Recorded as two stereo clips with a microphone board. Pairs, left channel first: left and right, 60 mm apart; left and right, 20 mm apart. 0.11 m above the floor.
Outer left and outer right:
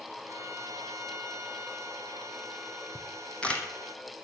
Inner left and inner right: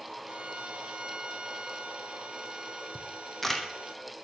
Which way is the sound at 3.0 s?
20° left (ahead or behind).